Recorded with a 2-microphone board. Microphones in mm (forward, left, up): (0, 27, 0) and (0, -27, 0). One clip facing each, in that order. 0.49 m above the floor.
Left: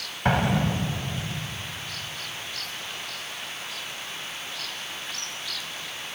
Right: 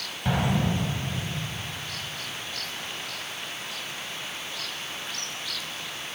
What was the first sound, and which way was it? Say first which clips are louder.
An explosion: left 3 dB; 60° left (ahead or behind).